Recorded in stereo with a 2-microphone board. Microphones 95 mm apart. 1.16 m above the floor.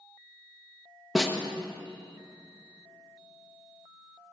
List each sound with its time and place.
1.1 s a snare drum: centre (ahead or behind), 1.0 m